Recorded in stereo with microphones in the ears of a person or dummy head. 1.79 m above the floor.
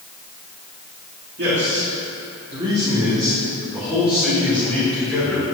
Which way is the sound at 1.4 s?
55° right (ahead or behind).